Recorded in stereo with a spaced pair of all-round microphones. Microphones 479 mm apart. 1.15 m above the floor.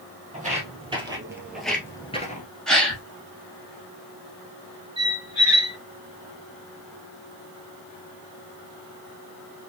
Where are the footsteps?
15° right (ahead or behind), 2 m; by 2.5 s 20° left (ahead or behind), 1.1 m.